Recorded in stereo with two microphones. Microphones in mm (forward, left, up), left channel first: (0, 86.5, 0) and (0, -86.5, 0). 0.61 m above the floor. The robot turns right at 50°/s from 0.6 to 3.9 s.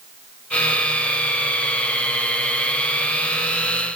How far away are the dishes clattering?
No dishes clattering in this recording.